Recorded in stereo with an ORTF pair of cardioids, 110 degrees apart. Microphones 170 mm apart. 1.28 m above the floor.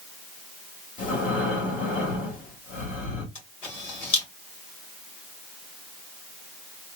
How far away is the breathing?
About 1.8 m.